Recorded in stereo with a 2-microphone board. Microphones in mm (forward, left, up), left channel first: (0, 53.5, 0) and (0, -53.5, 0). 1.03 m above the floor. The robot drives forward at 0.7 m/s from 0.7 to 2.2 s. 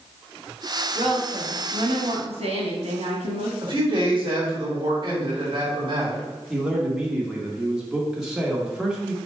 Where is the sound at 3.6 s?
45° right (ahead or behind), 1.9 m.